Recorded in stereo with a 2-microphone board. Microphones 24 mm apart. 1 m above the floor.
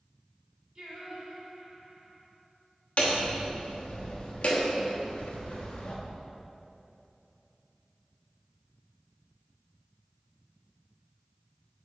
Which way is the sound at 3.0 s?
55° left (ahead or behind).